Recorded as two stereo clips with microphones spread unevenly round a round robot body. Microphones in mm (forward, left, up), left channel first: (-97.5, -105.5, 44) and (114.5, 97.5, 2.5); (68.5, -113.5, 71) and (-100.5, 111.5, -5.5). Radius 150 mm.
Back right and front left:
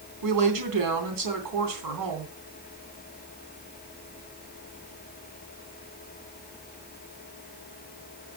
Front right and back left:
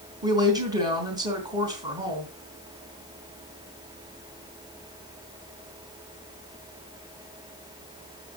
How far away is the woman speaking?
About 3 m.